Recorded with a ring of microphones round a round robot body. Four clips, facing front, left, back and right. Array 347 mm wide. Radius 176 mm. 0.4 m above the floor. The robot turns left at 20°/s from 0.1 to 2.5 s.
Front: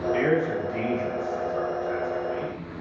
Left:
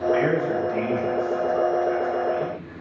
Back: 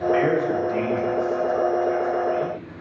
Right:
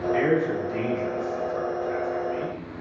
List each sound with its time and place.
0.1 s a man speaking: 175° right, 1.9 m; by 2.8 s 140° left, 1.9 m